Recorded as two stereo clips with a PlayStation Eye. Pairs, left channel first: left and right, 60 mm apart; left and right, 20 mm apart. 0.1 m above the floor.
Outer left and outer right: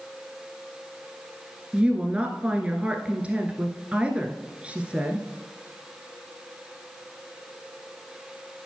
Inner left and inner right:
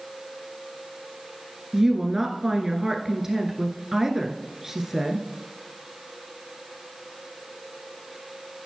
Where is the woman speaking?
20° right (ahead or behind), 1.3 m.